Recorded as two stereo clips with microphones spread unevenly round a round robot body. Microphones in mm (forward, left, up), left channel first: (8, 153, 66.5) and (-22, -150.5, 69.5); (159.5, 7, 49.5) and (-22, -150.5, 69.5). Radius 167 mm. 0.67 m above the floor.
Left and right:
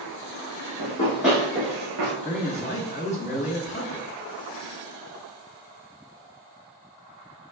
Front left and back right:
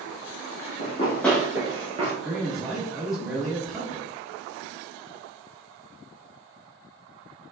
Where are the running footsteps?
95° left, 0.7 m; by 2.1 s 85° right, 1.0 m.